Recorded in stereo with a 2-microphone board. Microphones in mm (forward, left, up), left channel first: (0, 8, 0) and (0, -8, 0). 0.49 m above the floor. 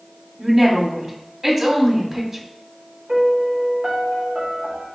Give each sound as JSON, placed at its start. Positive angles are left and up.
{"t": 0.4, "sound": "a woman speaking", "side_deg": -20, "distance_m": 1.5}
{"t": 3.1, "sound": "a piano", "side_deg": -40, "distance_m": 1.0}